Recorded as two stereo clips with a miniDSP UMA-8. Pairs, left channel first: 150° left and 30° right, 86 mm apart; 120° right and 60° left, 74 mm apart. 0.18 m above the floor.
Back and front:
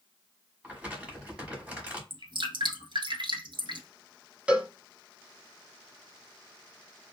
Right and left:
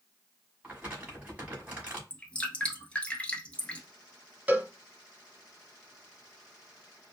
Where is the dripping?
45° right, 1.0 m.